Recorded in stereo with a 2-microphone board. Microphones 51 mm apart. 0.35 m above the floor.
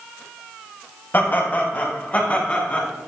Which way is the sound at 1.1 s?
40° left (ahead or behind).